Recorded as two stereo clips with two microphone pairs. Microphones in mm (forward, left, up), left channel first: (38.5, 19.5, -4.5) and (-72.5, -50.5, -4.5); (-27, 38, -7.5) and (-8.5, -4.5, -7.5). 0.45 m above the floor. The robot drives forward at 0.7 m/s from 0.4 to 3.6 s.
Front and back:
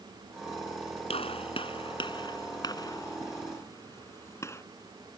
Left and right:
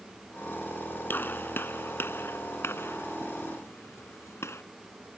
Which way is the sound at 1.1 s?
75° left.